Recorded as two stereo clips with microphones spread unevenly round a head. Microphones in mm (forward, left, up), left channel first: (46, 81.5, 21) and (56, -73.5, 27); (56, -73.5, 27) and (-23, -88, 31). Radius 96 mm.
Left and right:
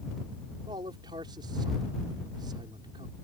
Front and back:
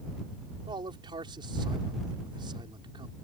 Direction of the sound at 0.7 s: 155° right.